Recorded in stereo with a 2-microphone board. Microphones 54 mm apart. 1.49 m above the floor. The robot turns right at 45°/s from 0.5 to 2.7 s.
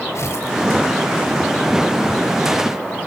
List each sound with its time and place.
0.1 s tearing paper: 65° left (ahead or behind), 2.5 m